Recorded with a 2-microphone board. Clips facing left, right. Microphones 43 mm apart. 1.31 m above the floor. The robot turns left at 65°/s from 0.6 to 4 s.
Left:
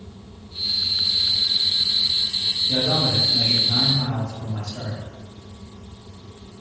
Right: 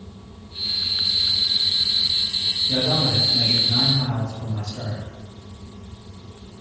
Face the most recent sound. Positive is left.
turn(degrees=90)